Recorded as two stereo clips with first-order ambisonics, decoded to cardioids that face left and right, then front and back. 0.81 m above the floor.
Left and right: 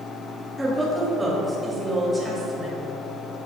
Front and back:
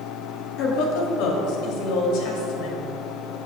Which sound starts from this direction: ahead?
A woman speaking, at 0.6 s.